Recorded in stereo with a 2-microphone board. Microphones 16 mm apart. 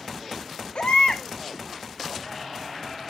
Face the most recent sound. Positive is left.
turn(degrees=80)